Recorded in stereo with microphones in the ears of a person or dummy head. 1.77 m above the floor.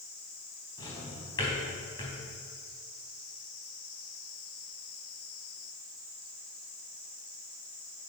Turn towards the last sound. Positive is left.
turn(degrees=25)  # may be behind; listen again after turning